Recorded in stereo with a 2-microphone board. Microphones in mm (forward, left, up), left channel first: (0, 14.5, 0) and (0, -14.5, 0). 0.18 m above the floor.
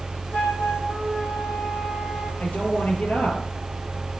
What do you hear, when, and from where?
0.3 s a flute: 80° left, 4 m
2.4 s a woman speaking: 60° left (ahead or behind), 3.5 m